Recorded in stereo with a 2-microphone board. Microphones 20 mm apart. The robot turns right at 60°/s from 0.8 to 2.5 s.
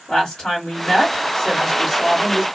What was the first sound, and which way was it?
A woman speaking, 110° left.